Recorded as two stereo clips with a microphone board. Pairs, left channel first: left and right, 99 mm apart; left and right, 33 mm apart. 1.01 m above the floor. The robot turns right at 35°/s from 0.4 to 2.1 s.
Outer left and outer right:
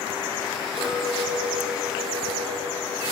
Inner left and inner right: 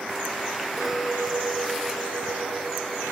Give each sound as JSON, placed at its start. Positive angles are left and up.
{"t": 0.8, "sound": "a clink", "azimuth_deg": -160, "distance_m": 2.0}